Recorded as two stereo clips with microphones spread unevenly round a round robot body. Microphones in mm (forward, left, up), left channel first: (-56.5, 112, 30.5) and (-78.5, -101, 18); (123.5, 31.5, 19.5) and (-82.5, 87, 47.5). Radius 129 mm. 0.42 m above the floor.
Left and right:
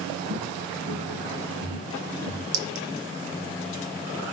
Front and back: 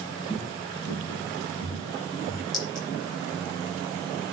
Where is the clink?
90° right, 6 m.